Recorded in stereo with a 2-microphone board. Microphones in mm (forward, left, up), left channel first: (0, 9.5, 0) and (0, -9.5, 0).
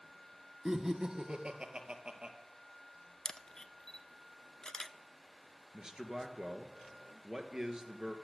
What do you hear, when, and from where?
0.7 s laughter: 25° right (ahead or behind), 1.2 m; by 2.4 s 55° right (ahead or behind), 2.5 m
3.2 s a camera shutter: 30° left (ahead or behind), 0.5 m
5.7 s a man speaking: 35° right (ahead or behind), 1.7 m